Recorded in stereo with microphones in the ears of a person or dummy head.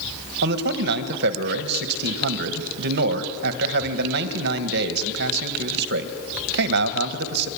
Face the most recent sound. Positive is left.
turn(degrees=-60)  # may be behind; listen again after turning